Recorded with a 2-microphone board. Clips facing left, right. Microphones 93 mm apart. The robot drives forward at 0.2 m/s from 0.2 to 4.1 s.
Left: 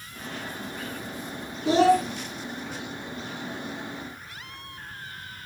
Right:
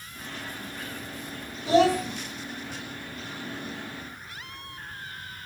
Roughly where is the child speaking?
Left.